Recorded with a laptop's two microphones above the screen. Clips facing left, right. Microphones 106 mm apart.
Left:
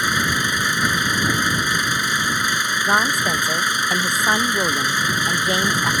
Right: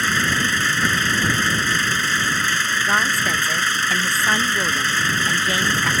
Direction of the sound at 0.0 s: 15° left (ahead or behind).